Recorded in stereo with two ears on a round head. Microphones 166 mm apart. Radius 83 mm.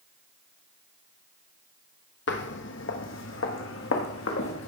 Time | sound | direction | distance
2.3 | footsteps | 60° left (ahead or behind) | 1.2 m